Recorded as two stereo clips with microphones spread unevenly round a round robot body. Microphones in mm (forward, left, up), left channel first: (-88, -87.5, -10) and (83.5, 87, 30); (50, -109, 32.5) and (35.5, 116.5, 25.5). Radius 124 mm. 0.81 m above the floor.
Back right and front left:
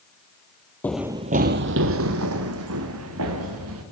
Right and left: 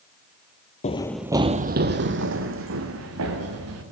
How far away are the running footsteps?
About 1.0 m.